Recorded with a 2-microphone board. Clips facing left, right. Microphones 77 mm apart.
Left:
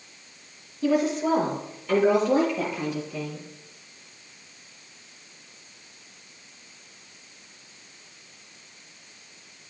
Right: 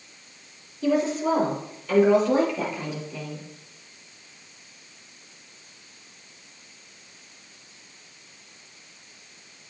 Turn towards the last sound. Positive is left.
turn(degrees=5)  # may be behind; listen again after turning